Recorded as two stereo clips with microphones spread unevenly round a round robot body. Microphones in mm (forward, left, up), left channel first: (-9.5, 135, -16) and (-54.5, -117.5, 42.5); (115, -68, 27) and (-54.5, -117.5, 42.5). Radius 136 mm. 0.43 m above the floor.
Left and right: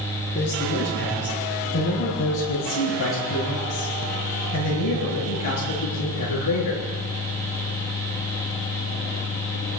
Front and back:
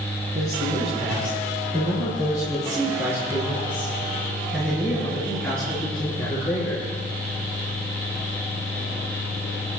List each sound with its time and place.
0.3 s a man speaking: 130° left, 8 m; by 6.9 s 95° left, 7 m